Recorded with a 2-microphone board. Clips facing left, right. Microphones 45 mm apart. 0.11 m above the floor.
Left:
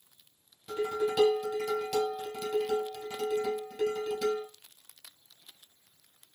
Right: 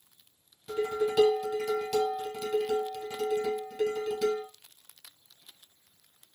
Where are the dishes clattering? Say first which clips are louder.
Right 1 dB; centre (ahead or behind), 1.7 m.